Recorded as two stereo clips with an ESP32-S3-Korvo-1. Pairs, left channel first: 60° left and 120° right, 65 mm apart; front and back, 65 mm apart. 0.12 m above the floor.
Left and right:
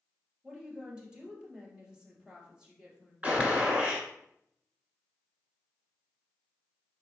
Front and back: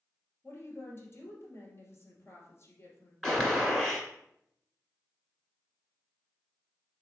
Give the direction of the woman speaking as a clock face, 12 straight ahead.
1 o'clock.